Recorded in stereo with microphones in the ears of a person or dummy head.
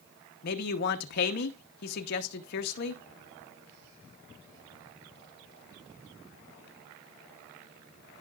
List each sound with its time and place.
0.4 s a man speaking: 55° left (ahead or behind), 1.0 m